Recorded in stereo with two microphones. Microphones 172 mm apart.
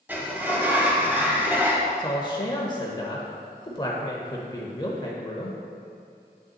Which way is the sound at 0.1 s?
10° right (ahead or behind).